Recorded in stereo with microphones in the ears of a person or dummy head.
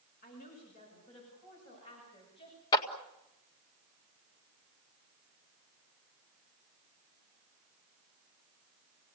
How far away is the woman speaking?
About 8 m.